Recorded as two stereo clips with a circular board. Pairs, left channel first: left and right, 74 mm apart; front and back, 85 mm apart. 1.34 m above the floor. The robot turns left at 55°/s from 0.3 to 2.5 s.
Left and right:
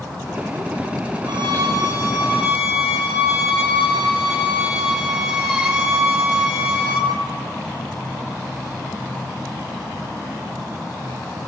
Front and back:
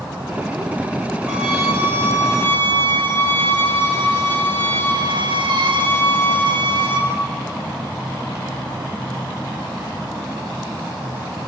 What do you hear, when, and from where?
1.3 s a violin: 105° right, 6 m; by 7.1 s 170° right, 6 m